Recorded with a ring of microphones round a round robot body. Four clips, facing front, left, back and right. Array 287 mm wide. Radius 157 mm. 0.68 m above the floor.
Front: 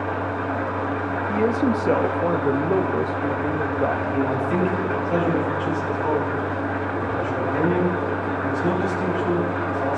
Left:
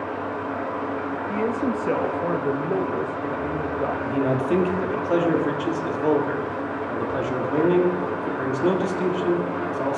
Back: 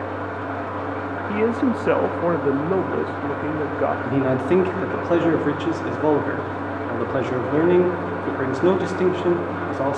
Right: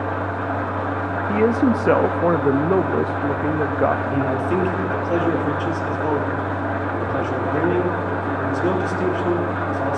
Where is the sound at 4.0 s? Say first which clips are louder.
Right 1 dB, back 3 dB; 175° left, 1.5 m.